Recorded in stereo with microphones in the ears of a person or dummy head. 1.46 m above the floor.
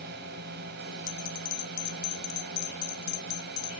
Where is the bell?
70° left (ahead or behind).